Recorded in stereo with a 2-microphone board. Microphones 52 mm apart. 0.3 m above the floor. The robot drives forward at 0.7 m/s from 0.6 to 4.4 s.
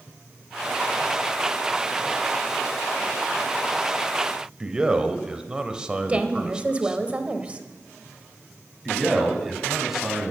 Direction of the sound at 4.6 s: 15° right (ahead or behind).